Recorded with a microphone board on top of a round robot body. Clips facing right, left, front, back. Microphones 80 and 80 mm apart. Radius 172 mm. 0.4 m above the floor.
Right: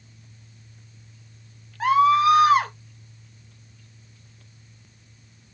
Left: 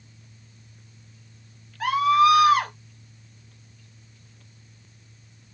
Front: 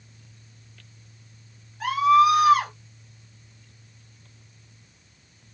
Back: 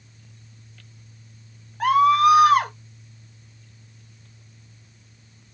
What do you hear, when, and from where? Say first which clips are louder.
1.8 s a scream: right 1 dB, back 2 dB; 150° right, 3 m